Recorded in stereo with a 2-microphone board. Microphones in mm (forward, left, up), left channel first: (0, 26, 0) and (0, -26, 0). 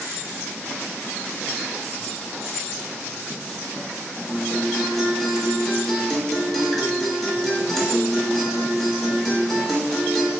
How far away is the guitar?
About 1.1 m.